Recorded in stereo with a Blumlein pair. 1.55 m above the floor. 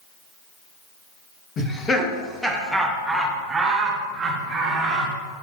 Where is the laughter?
20° left, 1.9 m; by 5.1 s 30° right, 3 m.